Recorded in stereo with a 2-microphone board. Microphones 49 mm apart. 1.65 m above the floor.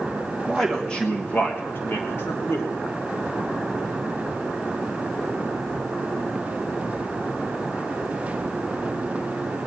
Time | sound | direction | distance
0.5 | a man speaking | 5° left (ahead or behind) | 1.4 m